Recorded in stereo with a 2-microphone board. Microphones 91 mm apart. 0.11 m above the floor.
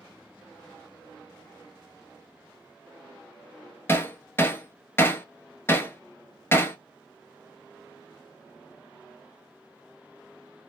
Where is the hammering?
25° left (ahead or behind), 1.0 m.